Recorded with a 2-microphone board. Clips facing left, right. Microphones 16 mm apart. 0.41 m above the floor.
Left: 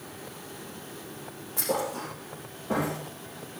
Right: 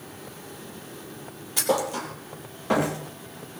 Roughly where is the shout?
I don't hear a shout.